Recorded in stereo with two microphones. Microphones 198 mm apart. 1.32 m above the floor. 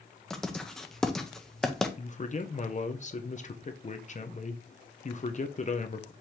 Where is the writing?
5° left (ahead or behind), 0.7 m.